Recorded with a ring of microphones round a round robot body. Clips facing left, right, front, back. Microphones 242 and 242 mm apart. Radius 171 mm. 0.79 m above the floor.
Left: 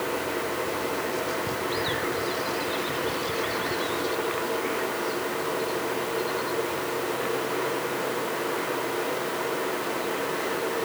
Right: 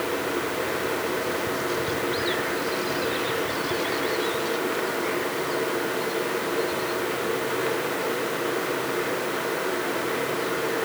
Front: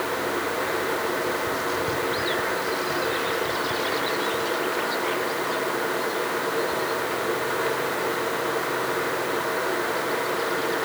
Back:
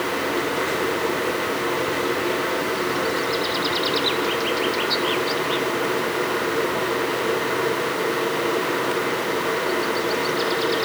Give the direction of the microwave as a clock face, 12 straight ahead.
I don't hear a microwave.